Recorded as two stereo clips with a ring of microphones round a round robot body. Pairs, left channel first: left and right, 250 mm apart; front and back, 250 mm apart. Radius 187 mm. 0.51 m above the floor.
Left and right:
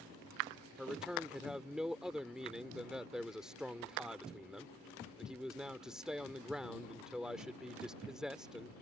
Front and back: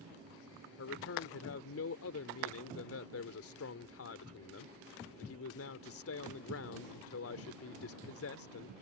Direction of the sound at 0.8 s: 5° right.